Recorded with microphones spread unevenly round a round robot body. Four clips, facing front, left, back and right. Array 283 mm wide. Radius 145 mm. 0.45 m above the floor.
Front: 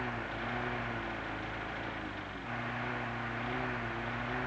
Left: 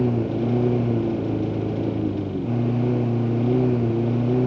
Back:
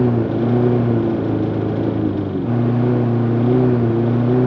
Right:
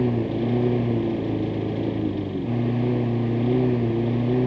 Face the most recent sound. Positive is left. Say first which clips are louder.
# left 1 dB, back 21 dB
turn(degrees=180)